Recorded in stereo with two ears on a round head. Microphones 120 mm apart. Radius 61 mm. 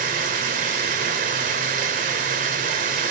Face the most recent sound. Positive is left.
turn(degrees=-70)  # may be behind; listen again after turning